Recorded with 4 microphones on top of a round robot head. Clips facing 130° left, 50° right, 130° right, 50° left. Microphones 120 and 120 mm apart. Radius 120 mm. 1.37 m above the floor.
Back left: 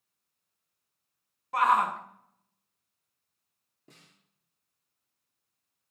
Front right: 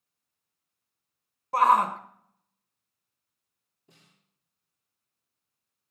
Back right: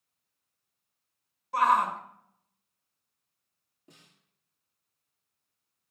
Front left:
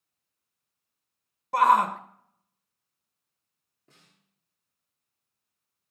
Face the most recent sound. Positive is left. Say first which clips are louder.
# back left 3 dB, back right 4 dB
turn(degrees=155)